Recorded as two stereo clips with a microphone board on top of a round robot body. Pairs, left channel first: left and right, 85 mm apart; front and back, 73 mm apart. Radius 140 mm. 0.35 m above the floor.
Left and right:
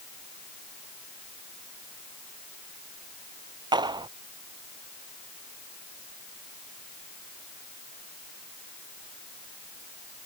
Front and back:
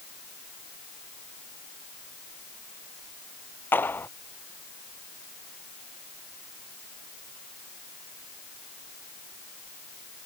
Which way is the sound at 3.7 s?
60° right.